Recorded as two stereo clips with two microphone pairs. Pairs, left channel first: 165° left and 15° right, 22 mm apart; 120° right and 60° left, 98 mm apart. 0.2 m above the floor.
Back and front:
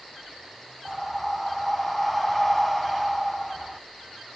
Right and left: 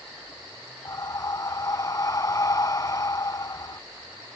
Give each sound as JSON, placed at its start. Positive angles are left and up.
{"t": 0.8, "sound": "breathing", "azimuth_deg": -105}